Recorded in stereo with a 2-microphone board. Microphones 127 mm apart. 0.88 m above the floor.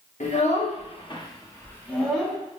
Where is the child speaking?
70° left (ahead or behind), 0.9 m; by 2.4 s centre (ahead or behind), 1.0 m.